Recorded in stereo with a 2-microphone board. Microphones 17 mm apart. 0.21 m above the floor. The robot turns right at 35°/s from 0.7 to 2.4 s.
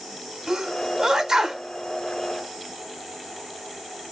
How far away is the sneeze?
About 1.5 m.